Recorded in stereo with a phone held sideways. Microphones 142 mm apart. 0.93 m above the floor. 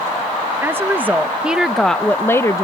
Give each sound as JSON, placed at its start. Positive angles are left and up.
{"t": 0.6, "sound": "a woman speaking", "side_deg": -15}